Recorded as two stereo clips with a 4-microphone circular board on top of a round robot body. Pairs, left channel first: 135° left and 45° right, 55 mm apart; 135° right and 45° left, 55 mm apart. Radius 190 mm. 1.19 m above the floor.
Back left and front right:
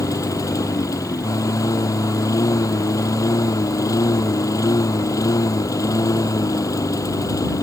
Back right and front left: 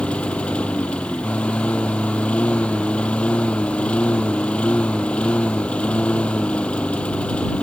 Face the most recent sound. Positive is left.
turn(degrees=155)